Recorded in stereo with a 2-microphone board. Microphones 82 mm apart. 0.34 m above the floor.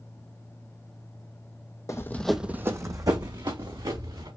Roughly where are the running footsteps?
Left.